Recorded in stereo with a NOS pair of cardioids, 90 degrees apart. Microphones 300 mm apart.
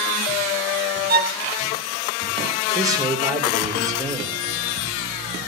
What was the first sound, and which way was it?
A violin, 30° right.